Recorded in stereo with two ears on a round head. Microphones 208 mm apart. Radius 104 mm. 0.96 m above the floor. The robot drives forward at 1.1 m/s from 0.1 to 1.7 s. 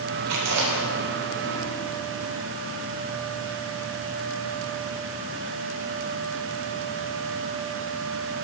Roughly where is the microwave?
No microwave in this recording.